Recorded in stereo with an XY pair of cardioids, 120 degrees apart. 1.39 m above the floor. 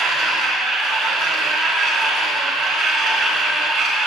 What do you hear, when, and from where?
0.0 s a machine running: 70° right, 3.5 m